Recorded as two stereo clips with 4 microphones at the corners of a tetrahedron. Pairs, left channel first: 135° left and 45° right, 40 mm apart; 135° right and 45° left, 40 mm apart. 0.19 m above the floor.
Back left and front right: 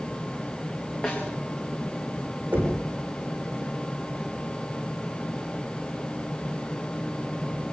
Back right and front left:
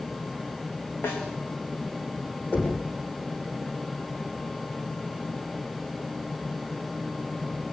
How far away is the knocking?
About 8.5 m.